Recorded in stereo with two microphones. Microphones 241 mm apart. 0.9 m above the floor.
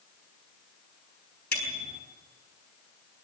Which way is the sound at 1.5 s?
40° left (ahead or behind).